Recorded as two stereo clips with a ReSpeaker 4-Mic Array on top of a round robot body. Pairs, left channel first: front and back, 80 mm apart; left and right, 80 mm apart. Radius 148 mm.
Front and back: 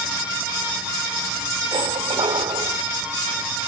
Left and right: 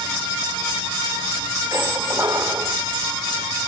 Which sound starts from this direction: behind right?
A squeak, at 1.7 s.